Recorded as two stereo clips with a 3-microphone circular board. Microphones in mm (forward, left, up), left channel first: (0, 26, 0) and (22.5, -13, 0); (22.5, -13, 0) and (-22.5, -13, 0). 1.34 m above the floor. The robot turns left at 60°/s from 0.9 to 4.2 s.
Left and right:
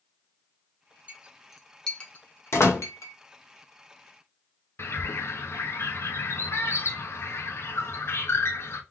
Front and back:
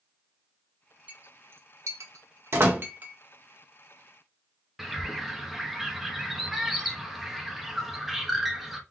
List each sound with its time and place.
1.1 s a clink: 120° right, 0.9 m; by 3.1 s 115° left, 0.9 m
2.5 s a door slam: 145° left, 1.9 m; by 2.8 s 130° left, 1.9 m
4.8 s a bird: 95° left, 0.9 m